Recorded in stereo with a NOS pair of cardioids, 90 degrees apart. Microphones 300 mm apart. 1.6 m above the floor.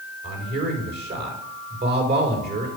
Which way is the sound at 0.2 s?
30° right.